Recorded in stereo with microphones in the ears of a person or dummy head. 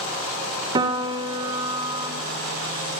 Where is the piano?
30° right (ahead or behind), 2 m.